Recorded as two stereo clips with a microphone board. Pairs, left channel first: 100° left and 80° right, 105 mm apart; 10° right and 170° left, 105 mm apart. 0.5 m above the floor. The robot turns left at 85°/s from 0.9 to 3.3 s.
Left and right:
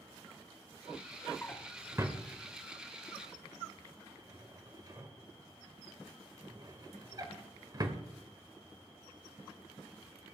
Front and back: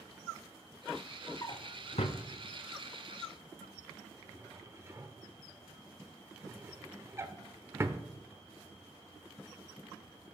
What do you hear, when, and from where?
1.4 s a drawer: 35° left, 1.0 m; by 8.0 s 125° right, 1.0 m